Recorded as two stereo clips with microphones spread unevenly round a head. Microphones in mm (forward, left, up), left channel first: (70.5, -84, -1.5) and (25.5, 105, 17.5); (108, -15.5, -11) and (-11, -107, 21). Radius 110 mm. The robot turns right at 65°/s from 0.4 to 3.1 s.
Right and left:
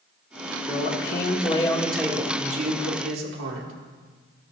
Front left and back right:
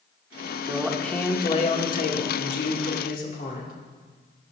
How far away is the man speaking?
About 2.5 m.